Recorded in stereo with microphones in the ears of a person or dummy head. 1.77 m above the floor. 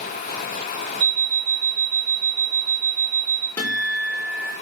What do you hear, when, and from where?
1.0 s an alarm clock: 65° right (ahead or behind), 3 m
3.6 s a guitar: 15° left (ahead or behind), 3 m